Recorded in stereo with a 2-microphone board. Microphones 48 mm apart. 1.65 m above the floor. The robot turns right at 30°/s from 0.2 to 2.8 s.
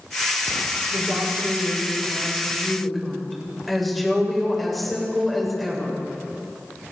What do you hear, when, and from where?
0.9 s a woman speaking: 55° right, 7 m; by 6.0 s straight ahead, 7 m